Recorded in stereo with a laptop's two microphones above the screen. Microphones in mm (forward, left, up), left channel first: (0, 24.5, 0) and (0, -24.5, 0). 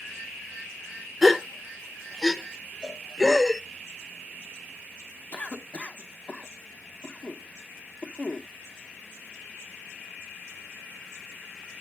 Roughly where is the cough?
Left.